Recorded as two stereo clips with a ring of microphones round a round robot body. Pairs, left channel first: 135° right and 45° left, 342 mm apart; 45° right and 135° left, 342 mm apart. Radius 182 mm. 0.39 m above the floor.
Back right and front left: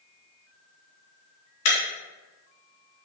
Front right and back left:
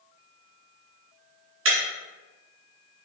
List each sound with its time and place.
1.6 s breaking glass: 170° right, 3 m